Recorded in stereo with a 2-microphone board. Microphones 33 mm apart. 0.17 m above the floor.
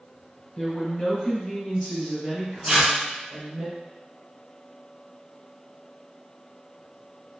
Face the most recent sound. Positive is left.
turn(degrees=-20)  # may be behind; listen again after turning